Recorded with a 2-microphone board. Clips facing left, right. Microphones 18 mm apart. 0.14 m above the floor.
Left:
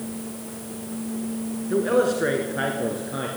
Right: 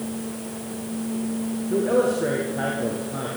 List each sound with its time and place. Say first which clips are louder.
1.7 s a man speaking: even; 35° left (ahead or behind), 1.7 m; by 3.3 s 50° left (ahead or behind), 2.5 m